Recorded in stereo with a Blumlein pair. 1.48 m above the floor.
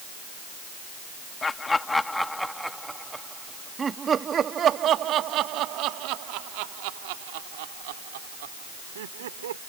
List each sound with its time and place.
1.4 s laughter: 15° left; by 9.6 s 60° right